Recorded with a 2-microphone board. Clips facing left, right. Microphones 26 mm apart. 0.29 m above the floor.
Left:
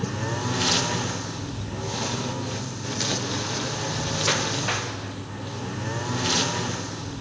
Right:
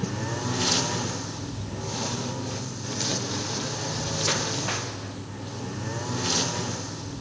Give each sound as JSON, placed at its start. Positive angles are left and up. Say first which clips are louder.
{"t": 0.0, "sound": "a lawn mower", "louder": "left 2 dB", "side_deg": 15}